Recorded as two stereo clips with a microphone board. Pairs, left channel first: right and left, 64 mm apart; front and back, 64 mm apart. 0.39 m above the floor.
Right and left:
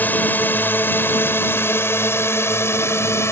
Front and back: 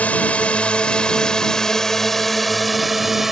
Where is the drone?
50° right; by 3.3 s 95° right.